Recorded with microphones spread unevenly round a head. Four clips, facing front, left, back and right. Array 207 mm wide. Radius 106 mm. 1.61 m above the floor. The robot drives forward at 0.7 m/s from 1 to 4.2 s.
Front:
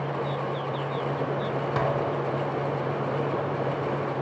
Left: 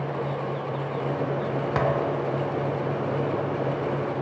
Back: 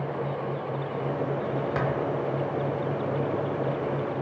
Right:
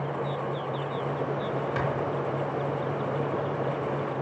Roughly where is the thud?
Ahead left.